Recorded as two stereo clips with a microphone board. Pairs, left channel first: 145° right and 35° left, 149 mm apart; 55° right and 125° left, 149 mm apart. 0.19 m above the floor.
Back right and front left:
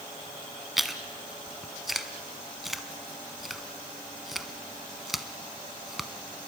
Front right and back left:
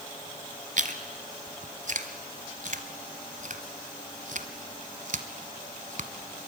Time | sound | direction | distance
0.8 | chewing | 125° left | 1.1 m